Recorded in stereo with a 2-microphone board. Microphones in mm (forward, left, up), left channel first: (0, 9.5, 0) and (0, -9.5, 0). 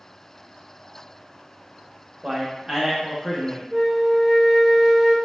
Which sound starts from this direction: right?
A man speaking, at 2.2 s.